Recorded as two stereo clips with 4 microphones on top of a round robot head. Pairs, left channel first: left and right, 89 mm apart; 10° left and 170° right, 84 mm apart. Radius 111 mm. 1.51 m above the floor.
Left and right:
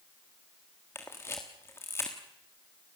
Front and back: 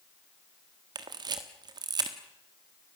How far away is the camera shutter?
About 1.3 m.